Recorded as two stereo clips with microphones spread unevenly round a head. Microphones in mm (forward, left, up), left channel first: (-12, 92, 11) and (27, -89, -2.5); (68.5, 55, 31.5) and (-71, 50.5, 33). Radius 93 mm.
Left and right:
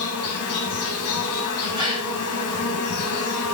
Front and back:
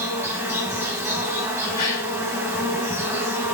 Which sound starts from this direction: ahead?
A gasp, at 1.8 s.